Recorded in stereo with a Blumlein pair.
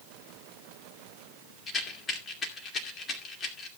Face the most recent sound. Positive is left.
turn(degrees=20)